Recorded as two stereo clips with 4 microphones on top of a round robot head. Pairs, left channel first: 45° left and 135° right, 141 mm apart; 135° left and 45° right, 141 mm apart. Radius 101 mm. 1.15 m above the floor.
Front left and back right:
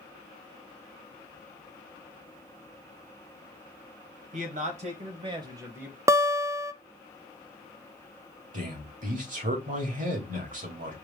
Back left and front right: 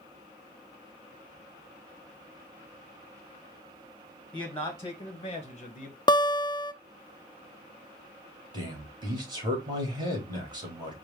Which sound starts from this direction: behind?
A guitar, at 6.1 s.